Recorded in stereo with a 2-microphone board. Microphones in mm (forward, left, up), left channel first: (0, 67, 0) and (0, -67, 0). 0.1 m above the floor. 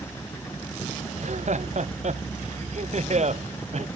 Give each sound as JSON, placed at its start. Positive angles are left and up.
{"t": 1.1, "sound": "laughter", "side_deg": -60}